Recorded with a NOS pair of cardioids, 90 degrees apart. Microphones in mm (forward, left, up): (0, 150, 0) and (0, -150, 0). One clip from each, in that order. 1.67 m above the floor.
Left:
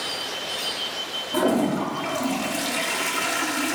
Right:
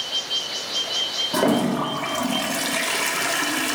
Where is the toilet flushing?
25° right, 0.6 m.